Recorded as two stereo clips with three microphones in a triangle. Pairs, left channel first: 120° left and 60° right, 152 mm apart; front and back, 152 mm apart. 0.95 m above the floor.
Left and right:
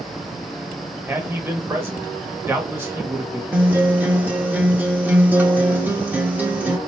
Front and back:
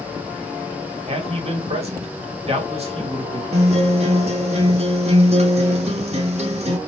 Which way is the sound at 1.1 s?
135° right.